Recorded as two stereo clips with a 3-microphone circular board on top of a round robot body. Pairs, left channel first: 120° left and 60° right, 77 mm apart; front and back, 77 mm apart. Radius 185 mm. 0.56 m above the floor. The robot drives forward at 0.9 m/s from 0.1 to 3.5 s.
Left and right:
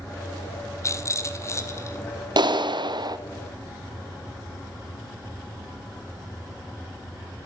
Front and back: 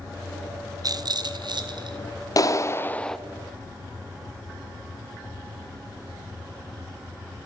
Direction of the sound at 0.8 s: 160° left.